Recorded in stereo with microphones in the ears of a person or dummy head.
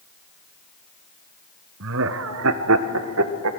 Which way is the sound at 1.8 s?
60° right (ahead or behind).